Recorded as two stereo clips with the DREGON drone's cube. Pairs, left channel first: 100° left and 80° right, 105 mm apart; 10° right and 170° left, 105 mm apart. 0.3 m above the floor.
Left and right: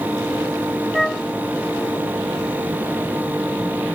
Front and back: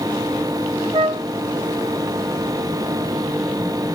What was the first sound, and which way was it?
A flute, 170° right.